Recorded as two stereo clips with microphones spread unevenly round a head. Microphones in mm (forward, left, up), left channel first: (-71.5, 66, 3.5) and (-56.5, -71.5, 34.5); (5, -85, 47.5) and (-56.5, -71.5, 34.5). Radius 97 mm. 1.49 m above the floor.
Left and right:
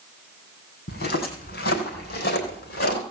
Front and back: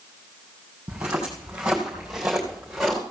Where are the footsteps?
85° left, 4 m; by 3.0 s 70° left, 4.5 m.